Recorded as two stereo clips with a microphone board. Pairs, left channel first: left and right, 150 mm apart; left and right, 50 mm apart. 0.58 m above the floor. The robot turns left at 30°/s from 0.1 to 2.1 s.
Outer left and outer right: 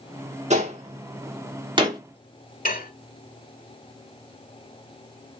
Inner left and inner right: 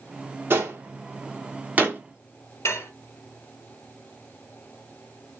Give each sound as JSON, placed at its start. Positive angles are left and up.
{"t": 0.5, "sound": "a gunshot", "side_deg": -50, "distance_m": 1.4}
{"t": 2.6, "sound": "dishes clattering", "side_deg": 70, "distance_m": 1.1}